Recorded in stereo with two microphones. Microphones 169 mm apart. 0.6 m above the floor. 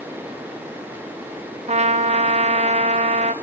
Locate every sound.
1.7 s a trumpet: 40° right (ahead or behind), 0.8 m